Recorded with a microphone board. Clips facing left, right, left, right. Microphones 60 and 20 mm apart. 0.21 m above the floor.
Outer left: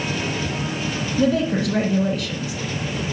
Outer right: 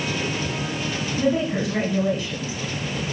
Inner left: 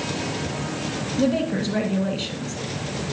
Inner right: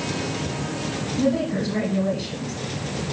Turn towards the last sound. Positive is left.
turn(degrees=70)  # may be behind; listen again after turning